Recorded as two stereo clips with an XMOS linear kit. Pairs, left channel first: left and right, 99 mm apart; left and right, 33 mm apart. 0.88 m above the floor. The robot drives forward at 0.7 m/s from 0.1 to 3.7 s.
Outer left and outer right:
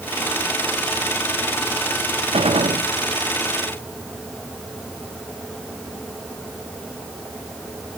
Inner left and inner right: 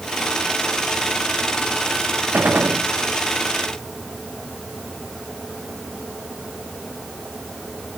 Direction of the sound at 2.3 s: 75° right (ahead or behind).